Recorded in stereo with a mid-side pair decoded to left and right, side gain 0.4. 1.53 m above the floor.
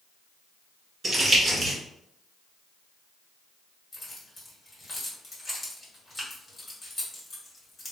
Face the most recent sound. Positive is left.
turn(degrees=30)